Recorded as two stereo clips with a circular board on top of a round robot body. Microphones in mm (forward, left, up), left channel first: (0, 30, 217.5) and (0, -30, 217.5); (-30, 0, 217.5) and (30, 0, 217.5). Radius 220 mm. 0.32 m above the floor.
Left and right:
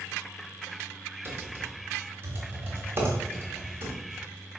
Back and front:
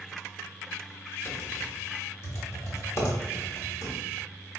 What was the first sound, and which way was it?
Typing on a keyboard, 140° right.